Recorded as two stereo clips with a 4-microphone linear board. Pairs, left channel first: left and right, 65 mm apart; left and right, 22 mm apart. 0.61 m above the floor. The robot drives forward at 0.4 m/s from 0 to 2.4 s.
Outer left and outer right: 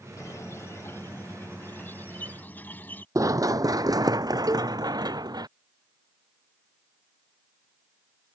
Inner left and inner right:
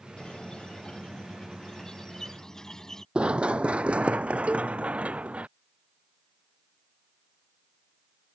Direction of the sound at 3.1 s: 55° right (ahead or behind).